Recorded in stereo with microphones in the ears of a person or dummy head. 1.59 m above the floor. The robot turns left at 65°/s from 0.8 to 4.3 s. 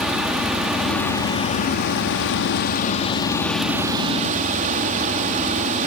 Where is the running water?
175° right, 1.8 m; by 5.9 s 45° right, 1.8 m.